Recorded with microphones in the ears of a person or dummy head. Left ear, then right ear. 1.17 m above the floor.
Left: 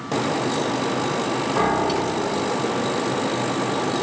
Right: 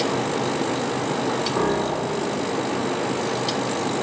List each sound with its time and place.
1.6 s a piano: 5° right (ahead or behind), 4.5 m